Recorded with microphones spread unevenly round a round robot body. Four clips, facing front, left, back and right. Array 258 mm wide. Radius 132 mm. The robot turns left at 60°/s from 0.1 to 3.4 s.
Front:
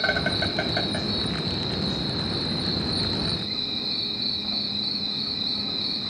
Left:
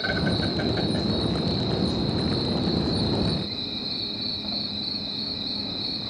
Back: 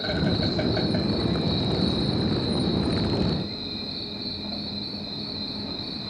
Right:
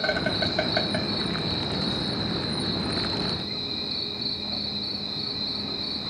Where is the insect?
25° right, 3 m; by 6.1 s 140° left, 3 m.